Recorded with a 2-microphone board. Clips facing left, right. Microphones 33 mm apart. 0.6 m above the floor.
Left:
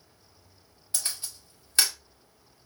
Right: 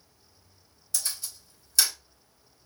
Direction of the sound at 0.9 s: 40° left (ahead or behind).